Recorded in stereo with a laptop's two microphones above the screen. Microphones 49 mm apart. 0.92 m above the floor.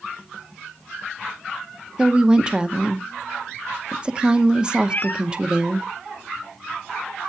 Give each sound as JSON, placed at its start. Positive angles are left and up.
{"t": 2.0, "sound": "a woman speaking", "side_deg": -20, "distance_m": 0.9}
{"t": 4.9, "sound": "a cat meowing", "side_deg": 40, "distance_m": 0.6}